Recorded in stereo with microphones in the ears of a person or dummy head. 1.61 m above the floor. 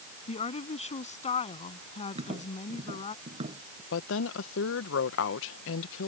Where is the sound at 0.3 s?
30° left (ahead or behind).